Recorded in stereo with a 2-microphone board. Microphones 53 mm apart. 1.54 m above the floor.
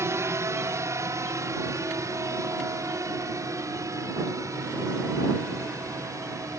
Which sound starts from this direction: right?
A drone, at 0.0 s.